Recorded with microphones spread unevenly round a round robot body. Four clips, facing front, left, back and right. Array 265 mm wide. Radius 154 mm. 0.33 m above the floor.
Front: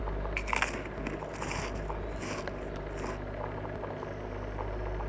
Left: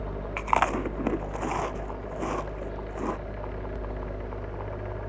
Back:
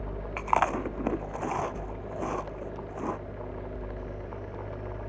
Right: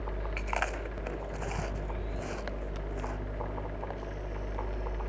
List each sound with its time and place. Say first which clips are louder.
0.4 s chewing: left 11 dB, back 11 dB; 115° left